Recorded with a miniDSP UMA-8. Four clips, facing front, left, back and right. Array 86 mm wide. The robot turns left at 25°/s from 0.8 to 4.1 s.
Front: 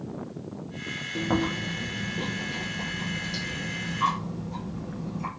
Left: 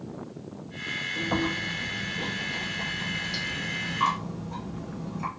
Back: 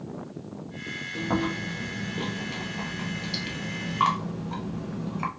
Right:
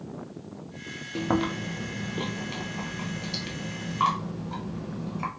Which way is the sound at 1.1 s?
85° right.